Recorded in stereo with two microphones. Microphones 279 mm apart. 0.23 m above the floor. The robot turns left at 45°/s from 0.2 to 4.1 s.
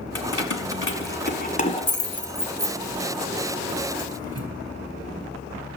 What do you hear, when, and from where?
0.1 s keys jangling: 60° left (ahead or behind), 1.5 m; by 4.5 s 60° right (ahead or behind), 1.5 m